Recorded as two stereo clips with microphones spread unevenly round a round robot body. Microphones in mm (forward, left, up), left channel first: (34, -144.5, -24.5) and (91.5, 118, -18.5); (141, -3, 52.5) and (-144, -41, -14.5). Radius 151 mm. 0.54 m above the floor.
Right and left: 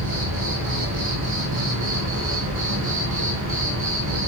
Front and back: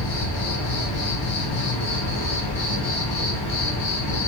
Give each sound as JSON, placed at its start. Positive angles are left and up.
{"t": 0.0, "sound": "an insect", "azimuth_deg": 35, "distance_m": 1.3}